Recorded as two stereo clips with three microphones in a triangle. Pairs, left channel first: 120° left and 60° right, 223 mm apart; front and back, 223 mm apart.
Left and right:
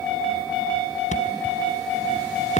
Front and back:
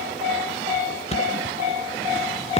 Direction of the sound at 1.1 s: 60° left.